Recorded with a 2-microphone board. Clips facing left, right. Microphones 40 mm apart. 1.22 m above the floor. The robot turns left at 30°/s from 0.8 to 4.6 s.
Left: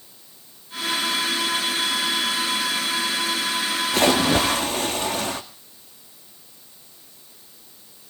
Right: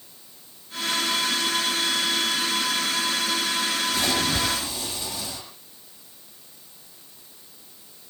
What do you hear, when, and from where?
3.9 s a splash: 80° left, 1.5 m; by 5.4 s 60° left (ahead or behind), 1.5 m